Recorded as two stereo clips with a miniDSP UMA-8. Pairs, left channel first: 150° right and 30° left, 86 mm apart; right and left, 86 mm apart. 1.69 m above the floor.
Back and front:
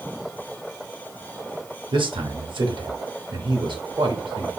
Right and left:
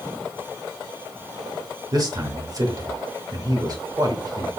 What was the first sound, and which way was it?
A man speaking, 45° left.